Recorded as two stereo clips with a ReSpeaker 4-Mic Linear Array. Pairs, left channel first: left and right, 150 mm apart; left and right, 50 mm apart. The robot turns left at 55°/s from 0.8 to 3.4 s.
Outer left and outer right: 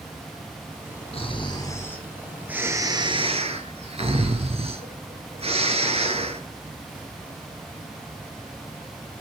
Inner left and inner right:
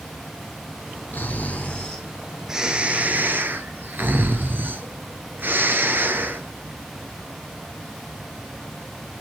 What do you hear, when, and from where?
1.1 s snoring: 60° left, 1.5 m; by 6.4 s 65° right, 1.5 m